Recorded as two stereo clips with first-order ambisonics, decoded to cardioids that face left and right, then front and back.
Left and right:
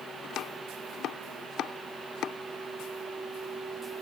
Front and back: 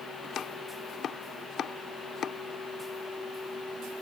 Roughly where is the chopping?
Ahead left.